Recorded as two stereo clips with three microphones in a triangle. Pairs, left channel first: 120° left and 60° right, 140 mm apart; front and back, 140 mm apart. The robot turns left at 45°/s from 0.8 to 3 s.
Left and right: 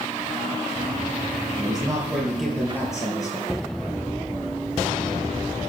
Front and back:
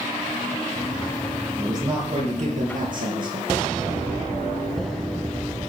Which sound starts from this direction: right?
A man speaking, at 1.6 s.